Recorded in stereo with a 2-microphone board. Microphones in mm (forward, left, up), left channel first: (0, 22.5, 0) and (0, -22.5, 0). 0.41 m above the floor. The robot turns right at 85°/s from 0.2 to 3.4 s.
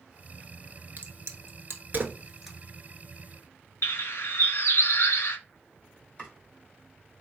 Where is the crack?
45° right (ahead or behind), 1.0 m; by 2.6 s 5° left (ahead or behind), 1.0 m.